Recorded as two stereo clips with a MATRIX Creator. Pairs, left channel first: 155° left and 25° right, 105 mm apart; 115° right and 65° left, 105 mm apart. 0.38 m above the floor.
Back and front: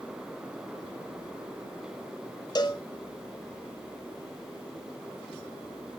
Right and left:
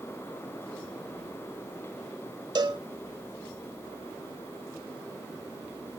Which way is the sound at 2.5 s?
110° left.